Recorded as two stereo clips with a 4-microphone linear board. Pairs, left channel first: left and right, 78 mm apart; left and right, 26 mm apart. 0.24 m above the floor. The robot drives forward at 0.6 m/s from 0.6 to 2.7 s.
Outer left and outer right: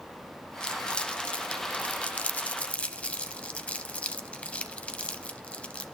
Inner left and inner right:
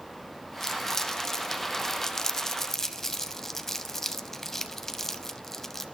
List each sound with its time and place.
0.6 s crumpling: 10° left (ahead or behind), 1.1 m; by 5.8 s 15° left (ahead or behind), 0.8 m